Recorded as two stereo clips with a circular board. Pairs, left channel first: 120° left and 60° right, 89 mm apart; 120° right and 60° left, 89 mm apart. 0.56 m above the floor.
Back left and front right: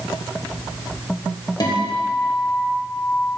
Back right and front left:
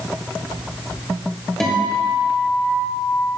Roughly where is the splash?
No splash in this recording.